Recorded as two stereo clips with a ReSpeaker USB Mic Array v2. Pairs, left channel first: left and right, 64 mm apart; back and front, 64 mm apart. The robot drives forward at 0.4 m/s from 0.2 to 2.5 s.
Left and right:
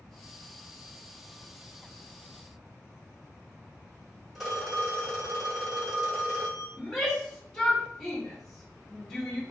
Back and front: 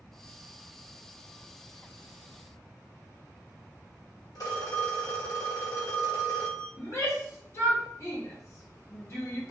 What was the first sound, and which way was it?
A phone ringing, 175° right.